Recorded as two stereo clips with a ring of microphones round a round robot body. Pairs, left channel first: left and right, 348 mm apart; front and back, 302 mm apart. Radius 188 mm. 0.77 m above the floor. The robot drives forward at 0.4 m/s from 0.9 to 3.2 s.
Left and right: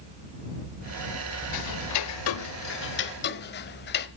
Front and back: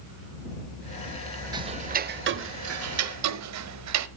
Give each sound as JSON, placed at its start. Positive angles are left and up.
{"t": 1.5, "sound": "ticking", "azimuth_deg": 105, "distance_m": 0.6}